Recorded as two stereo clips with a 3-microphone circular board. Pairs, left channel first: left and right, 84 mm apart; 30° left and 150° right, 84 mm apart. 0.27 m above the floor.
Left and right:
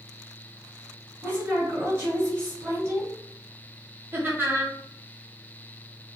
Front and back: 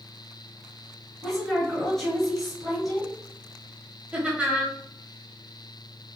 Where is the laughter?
90° right, 1.0 m.